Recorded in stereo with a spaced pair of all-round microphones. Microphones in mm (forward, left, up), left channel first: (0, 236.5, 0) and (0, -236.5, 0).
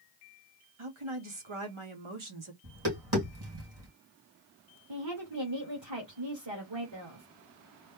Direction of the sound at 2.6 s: 55° right (ahead or behind).